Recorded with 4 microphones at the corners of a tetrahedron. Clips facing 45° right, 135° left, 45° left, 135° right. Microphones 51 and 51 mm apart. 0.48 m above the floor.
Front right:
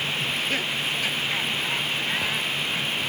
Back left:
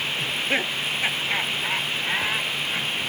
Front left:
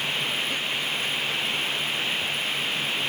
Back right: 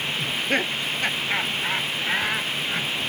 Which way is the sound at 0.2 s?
165° right.